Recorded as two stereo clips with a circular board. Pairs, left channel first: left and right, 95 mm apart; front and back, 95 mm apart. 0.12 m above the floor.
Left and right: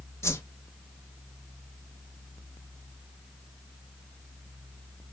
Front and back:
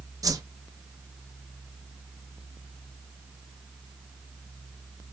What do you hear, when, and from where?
0.2 s a whoosh: 145° left, 0.5 m